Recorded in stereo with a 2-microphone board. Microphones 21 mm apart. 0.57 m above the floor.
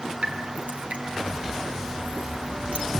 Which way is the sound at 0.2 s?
80° right.